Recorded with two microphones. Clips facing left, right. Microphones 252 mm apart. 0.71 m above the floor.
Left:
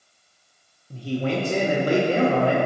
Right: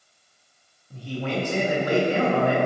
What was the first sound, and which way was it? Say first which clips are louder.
A man speaking: left 4 dB; 35° left (ahead or behind).